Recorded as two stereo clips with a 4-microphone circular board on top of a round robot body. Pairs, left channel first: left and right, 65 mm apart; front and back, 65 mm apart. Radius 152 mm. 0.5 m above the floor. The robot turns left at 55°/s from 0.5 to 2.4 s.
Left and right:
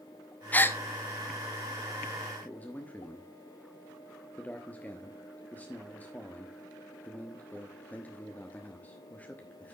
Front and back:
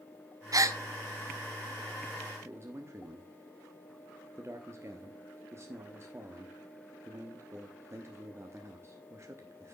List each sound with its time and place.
0.5 s a gasp: 155° left, 0.9 m; by 0.8 s 140° left, 0.9 m
2.5 s a man speaking: 150° left, 1.2 m